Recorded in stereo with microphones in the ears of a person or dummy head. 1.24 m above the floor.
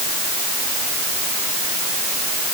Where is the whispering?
No whispering in this recording.